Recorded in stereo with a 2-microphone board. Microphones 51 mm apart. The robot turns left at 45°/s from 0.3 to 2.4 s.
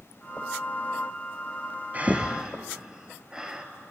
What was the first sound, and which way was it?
Breathing, 30° right (ahead or behind).